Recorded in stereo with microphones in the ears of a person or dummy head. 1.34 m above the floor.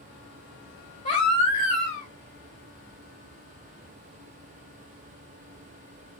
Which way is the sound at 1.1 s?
35° left (ahead or behind).